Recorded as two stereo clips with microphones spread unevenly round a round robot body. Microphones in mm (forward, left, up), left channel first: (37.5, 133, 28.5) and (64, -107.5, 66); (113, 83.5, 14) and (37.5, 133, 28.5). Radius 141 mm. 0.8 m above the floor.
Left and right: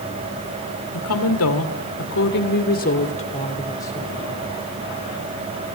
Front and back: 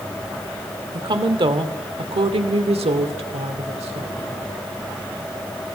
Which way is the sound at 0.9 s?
115° left.